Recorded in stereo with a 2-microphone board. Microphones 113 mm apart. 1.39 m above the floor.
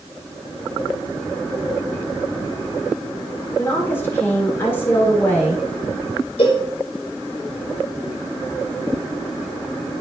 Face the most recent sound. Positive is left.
turn(degrees=55)  # may be behind; listen again after turning